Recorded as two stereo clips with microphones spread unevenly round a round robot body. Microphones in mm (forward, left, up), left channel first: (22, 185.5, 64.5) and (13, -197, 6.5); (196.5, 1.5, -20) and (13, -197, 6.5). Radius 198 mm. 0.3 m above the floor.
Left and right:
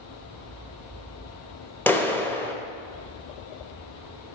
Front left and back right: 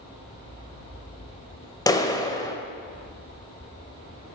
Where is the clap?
10° right, 0.8 m.